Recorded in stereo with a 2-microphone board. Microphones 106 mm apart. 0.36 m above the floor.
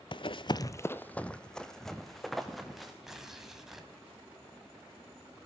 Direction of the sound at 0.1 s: 50° left (ahead or behind).